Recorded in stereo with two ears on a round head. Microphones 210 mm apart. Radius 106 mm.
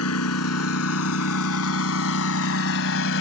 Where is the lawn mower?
70° left (ahead or behind); by 3.2 s 55° left (ahead or behind).